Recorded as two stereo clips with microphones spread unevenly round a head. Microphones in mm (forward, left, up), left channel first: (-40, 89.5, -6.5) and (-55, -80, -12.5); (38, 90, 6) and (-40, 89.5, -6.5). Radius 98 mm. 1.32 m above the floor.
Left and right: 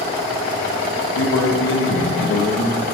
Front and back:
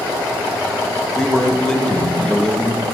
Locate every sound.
1.1 s a man speaking: 80° left, 1.4 m